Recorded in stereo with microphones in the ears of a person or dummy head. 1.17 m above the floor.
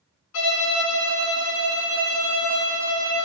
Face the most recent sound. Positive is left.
turn(degrees=75)  # may be behind; listen again after turning